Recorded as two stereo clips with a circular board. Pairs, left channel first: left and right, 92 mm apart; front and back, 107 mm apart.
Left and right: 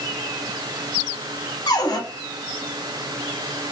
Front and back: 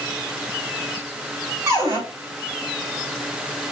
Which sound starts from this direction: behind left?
A cupboard door, at 1.7 s.